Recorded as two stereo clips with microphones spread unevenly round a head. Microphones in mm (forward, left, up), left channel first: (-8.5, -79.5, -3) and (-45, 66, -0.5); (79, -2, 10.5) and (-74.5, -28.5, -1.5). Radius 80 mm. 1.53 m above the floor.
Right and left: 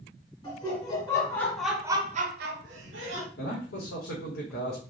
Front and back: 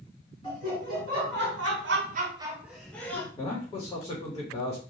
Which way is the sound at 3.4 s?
60° right.